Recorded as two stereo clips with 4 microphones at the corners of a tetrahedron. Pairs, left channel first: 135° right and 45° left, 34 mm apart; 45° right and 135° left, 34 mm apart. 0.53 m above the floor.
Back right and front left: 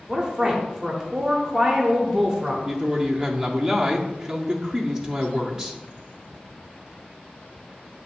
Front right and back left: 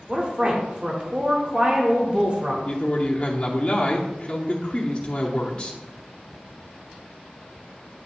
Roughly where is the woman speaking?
Left.